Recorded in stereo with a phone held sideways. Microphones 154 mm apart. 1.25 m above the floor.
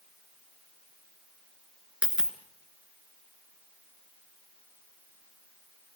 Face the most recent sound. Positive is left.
turn(degrees=-5)  # may be behind; listen again after turning